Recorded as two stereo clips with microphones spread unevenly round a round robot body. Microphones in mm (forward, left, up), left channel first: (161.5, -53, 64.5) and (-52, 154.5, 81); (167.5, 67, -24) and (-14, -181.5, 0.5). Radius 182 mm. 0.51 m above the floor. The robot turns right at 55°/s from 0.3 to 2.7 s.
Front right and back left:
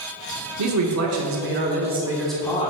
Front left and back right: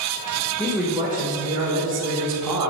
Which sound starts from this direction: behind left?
A man speaking, at 0.6 s.